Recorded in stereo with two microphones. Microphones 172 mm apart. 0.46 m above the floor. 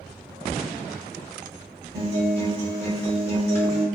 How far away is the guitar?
About 1.3 m.